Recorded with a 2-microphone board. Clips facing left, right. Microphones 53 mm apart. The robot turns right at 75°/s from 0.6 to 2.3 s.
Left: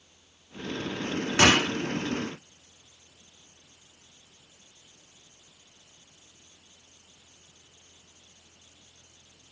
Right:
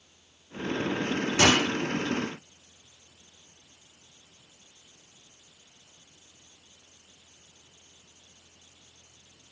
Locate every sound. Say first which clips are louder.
1.4 s a gunshot: left 2 dB; 45° left (ahead or behind), 1.1 m; by 1.7 s 25° left (ahead or behind), 1.1 m